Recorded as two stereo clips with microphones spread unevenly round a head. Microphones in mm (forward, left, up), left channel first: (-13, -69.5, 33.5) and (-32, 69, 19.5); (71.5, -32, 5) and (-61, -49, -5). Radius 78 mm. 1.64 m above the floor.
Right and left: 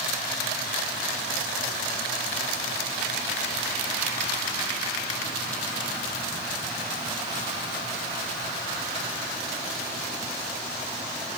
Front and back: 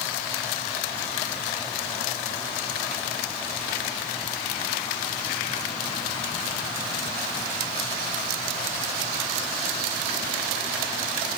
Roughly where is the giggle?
I don't hear a giggle.